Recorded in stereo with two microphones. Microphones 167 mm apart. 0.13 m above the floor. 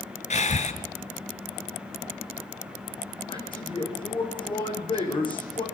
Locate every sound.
0.3 s breathing: 45° left (ahead or behind), 1.8 m
3.3 s a man speaking: 30° left (ahead or behind), 6.5 m